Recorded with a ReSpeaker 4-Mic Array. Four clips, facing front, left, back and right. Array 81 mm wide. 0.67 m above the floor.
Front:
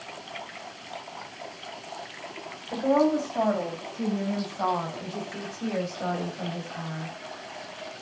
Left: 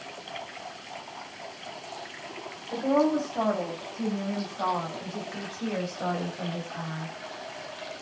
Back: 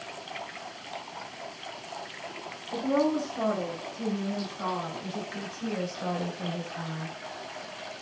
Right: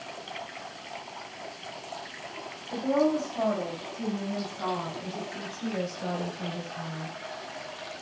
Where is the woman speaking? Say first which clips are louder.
Left 1 dB, front 4 dB; 20° left, 4 m; by 7.1 s 55° left, 3.5 m.